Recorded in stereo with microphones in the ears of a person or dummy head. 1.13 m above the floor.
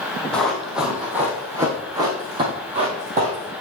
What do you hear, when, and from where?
0.3 s running footsteps: 5° left (ahead or behind), 2 m; by 3.5 s 40° right (ahead or behind), 1.8 m